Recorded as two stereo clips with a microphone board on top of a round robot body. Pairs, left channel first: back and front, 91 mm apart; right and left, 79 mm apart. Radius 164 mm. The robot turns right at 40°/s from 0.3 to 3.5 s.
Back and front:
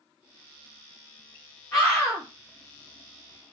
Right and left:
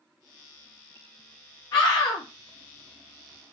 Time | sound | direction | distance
1.7 | a scream | 130° right | 1.2 m